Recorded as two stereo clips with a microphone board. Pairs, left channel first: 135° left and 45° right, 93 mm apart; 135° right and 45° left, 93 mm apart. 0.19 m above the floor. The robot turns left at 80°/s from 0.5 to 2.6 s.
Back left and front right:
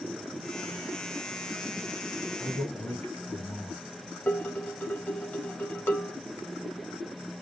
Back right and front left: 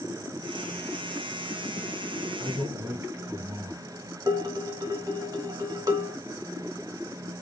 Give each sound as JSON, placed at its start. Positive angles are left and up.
{"t": 2.4, "sound": "a man speaking", "azimuth_deg": 120, "distance_m": 1.6}
{"t": 4.3, "sound": "dishes clattering", "azimuth_deg": 75, "distance_m": 0.9}